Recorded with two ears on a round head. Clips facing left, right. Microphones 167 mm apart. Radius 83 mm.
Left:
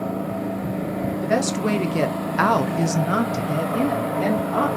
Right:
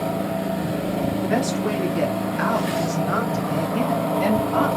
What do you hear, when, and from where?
1.2 s a woman speaking: 55° left (ahead or behind), 1.3 m; by 4.7 s 5° right (ahead or behind), 1.3 m